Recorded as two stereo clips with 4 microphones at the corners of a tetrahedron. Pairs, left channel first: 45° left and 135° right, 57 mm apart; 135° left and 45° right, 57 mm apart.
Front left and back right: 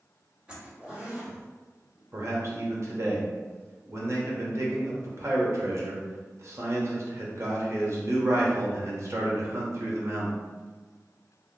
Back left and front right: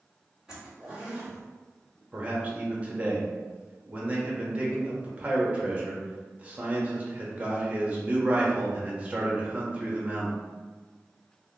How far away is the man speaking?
About 0.8 m.